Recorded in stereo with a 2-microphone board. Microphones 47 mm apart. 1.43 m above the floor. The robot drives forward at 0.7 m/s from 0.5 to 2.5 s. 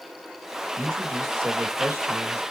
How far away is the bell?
I don't hear a bell.